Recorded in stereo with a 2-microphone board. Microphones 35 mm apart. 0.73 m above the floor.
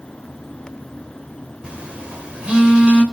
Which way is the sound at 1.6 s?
30° right (ahead or behind).